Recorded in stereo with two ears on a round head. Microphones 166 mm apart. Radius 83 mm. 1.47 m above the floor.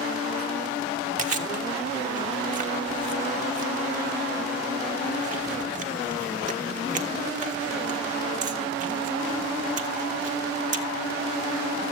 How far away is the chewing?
About 1.7 m.